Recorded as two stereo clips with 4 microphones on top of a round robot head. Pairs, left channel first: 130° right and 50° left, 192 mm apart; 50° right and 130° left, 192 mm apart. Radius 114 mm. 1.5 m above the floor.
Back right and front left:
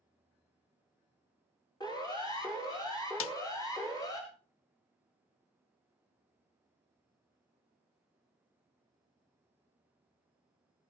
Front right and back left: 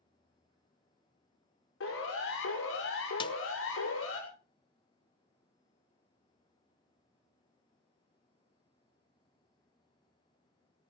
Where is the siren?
60° right, 6 m.